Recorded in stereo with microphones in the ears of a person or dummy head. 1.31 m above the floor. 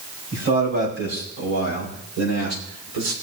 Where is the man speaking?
55° right (ahead or behind), 5 m; by 3.1 s 70° right (ahead or behind), 3.5 m.